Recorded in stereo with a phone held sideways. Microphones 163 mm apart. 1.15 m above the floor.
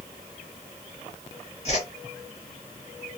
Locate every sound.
1.6 s a whoosh: 40° left (ahead or behind), 1.4 m